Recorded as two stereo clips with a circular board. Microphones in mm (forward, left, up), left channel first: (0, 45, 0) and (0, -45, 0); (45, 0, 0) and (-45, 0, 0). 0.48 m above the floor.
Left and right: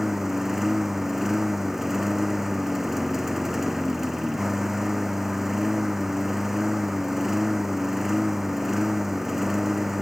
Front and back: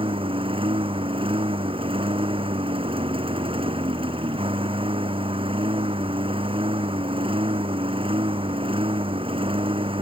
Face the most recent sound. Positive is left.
turn(degrees=-175)